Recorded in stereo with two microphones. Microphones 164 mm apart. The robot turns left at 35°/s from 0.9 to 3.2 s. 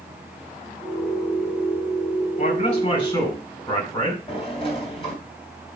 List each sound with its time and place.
2.4 s a man speaking: 55° left (ahead or behind), 4.5 m; by 4.2 s 25° left (ahead or behind), 4.5 m
4.3 s a sliding door: 35° left (ahead or behind), 3 m